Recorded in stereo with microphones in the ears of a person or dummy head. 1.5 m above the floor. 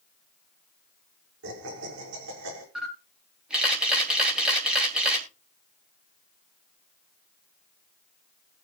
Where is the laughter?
70° right (ahead or behind), 5.5 m.